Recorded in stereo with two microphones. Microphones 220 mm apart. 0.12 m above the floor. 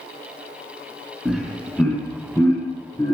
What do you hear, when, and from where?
1.2 s laughter: centre (ahead or behind), 1.2 m; by 3.1 s 15° left (ahead or behind), 1.5 m